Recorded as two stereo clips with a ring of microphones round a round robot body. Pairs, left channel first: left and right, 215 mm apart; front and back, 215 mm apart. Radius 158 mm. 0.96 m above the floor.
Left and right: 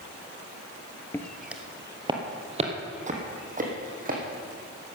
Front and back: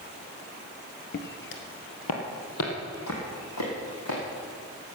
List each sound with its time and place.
1.1 s footsteps: 15° left, 1.3 m; by 4.2 s 40° right, 4 m